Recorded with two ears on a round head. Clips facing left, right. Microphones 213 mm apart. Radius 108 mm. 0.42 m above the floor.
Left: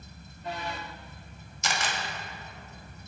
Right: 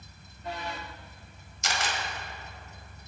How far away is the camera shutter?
About 1.7 m.